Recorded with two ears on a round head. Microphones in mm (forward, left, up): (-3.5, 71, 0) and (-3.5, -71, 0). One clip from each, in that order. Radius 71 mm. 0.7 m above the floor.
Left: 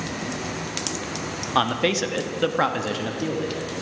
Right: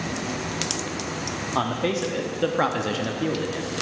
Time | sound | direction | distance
1.6 | a man speaking | 55° left (ahead or behind) | 0.9 m